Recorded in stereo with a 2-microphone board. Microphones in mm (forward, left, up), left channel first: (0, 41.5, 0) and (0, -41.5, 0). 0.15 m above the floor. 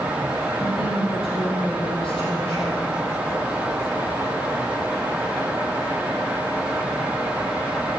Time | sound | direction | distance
0.6 | a woman speaking | 75° left (ahead or behind) | 5 m